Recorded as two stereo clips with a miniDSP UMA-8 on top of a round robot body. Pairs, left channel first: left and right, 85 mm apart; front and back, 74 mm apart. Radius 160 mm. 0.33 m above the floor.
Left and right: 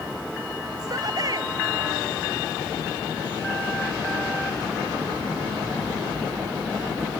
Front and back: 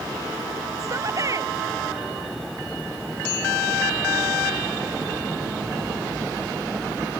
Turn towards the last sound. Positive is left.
turn(degrees=-135)